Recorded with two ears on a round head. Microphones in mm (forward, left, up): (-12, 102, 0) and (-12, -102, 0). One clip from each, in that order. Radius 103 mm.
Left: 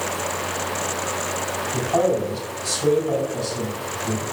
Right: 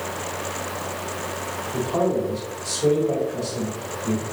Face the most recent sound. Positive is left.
turn(degrees=10)  # may be behind; listen again after turning